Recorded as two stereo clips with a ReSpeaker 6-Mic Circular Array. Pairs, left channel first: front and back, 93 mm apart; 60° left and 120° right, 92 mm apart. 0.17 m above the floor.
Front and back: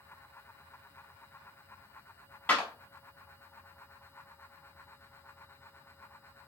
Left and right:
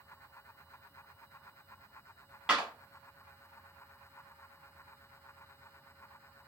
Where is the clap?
50° right, 0.9 m.